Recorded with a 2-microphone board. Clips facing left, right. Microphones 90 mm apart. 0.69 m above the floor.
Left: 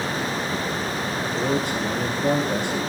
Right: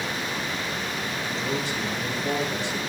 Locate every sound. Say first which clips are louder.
1.2 s a man speaking: left 6 dB; 55° left (ahead or behind), 8 m